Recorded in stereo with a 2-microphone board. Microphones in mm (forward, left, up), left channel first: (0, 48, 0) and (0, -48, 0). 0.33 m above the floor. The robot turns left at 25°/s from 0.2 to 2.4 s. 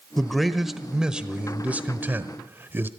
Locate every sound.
0.2 s a man speaking: 5° left, 1.0 m; by 2.9 s 50° right, 1.0 m